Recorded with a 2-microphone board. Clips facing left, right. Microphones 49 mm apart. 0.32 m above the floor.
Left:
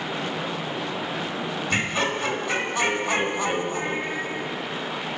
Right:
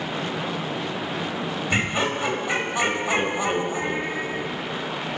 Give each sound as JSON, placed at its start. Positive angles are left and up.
{"t": 1.7, "sound": "laughter", "side_deg": -15, "distance_m": 1.2}